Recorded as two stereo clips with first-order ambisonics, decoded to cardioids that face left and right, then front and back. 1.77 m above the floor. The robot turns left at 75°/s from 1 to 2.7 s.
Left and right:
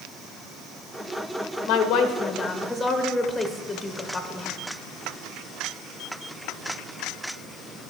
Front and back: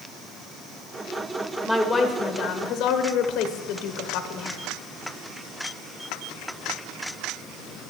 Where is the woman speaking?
100° left, 1.0 m; by 4.6 s 20° left, 1.0 m.